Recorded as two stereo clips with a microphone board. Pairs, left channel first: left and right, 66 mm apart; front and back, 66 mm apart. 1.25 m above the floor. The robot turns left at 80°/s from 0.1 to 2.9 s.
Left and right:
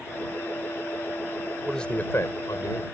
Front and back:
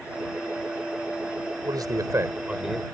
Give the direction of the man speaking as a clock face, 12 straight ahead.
6 o'clock.